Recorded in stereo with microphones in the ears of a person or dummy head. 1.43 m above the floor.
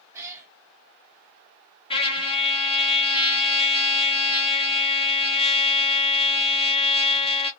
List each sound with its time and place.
0.1 s a cat meowing: 20° right (ahead or behind), 1.2 m
1.9 s a trumpet: 25° left (ahead or behind), 0.5 m